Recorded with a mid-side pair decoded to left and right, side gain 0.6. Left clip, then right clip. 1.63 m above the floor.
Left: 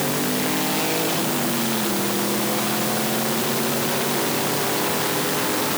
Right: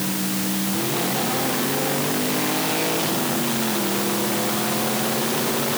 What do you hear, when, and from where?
Only background noise.